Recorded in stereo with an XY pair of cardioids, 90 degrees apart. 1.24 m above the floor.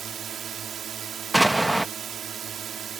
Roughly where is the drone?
Ahead right.